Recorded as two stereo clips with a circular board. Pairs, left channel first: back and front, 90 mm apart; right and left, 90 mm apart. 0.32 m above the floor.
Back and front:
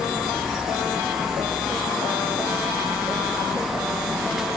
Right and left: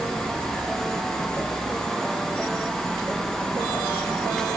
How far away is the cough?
I don't hear a cough.